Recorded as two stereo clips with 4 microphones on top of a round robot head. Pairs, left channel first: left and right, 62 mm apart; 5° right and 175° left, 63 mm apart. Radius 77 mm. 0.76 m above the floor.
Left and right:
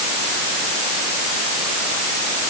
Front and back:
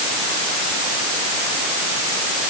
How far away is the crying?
I don't hear crying.